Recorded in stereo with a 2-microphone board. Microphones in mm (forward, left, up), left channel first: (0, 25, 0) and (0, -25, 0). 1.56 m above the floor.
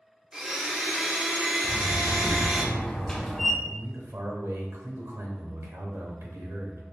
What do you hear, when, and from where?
0.3 s a blender: 10° right (ahead or behind), 0.6 m
1.6 s a door slam: 10° left (ahead or behind), 0.6 m
3.6 s a man speaking: 90° right, 1.1 m